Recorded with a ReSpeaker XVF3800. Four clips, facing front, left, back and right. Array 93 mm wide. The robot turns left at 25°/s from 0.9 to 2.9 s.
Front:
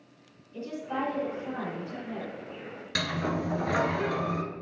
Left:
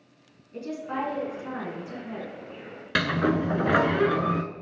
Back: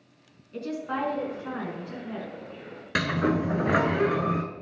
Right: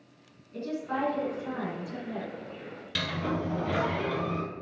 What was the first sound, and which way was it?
A woman speaking, 170° left.